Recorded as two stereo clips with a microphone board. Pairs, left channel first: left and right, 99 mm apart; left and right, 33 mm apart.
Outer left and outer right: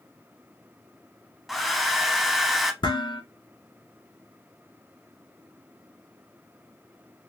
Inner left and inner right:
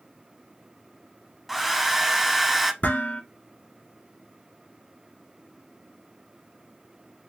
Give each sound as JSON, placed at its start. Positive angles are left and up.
{"t": 1.5, "sound": "a hair dryer", "side_deg": 0, "distance_m": 0.6}
{"t": 2.8, "sound": "dishes clattering", "side_deg": 55, "distance_m": 2.5}